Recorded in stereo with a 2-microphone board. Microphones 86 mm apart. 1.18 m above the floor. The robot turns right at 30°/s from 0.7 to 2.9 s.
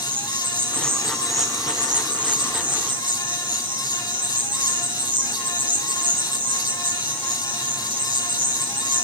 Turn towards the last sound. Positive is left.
turn(degrees=-90)